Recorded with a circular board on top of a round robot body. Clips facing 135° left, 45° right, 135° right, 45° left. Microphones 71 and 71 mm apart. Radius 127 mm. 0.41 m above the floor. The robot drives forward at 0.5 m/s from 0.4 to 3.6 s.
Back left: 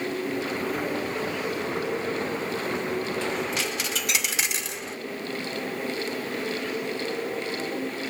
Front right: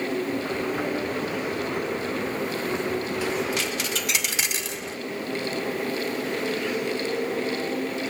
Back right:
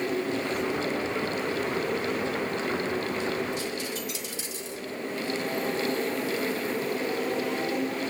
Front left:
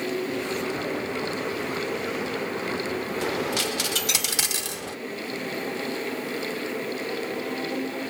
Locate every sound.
3.2 s a dropped coin: 35° left, 0.7 m; by 5.0 s 45° left, 0.6 m